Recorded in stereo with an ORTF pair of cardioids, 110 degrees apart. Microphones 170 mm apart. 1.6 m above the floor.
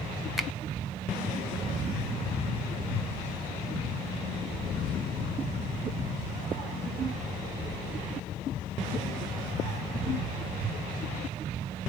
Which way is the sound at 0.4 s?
Straight ahead.